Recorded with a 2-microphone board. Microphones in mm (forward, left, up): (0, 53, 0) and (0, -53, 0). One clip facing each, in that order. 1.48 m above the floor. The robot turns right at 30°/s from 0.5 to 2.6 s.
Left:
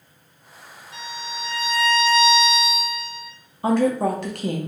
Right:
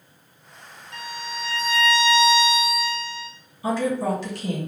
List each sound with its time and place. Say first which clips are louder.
0.9 s a violin: even; 120° right, 1.2 m; by 3.3 s 70° right, 1.2 m
3.6 s a woman speaking: left 4 dB; 60° left (ahead or behind), 0.9 m